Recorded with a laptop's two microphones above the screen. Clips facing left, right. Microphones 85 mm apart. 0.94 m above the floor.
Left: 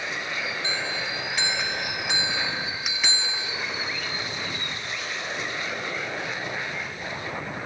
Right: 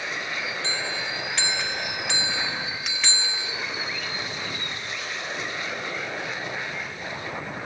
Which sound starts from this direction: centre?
A bell, at 0.6 s.